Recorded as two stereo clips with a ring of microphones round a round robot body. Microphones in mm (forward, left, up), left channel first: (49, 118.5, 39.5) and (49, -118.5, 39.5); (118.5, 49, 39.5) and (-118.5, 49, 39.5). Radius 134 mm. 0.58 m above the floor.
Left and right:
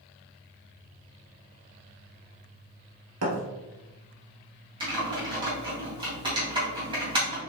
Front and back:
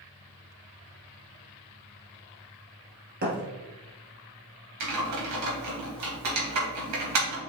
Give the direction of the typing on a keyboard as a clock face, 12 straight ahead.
5 o'clock.